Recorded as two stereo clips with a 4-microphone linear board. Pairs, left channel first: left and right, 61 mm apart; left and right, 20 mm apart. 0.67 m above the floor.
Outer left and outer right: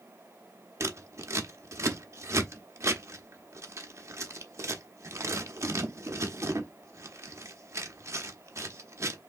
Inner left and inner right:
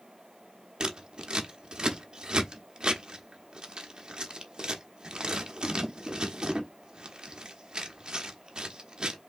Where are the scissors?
50° right (ahead or behind), 0.8 m.